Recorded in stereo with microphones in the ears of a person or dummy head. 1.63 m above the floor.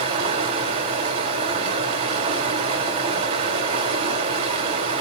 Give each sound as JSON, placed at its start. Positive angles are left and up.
{"t": 0.0, "sound": "running water", "side_deg": -35, "distance_m": 4.0}